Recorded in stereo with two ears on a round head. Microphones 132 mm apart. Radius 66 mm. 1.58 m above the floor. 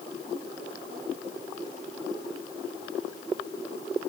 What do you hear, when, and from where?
Only background noise.